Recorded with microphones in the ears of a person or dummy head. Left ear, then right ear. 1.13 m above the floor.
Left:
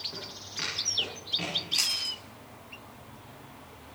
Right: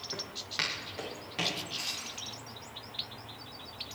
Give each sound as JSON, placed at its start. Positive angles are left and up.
{"t": 0.1, "sound": "footsteps", "side_deg": -75, "distance_m": 7.5}
{"t": 1.7, "sound": "chewing", "side_deg": 55, "distance_m": 5.0}